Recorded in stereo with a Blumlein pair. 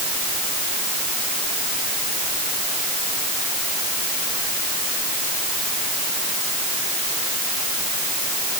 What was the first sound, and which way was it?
Only background noise.